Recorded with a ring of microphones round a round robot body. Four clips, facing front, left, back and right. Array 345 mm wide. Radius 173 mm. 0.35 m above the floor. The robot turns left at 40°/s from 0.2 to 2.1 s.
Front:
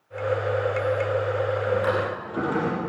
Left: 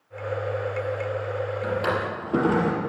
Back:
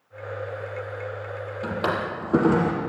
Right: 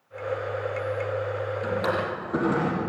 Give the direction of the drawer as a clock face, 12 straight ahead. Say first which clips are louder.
Even, back 1 dB; 6 o'clock.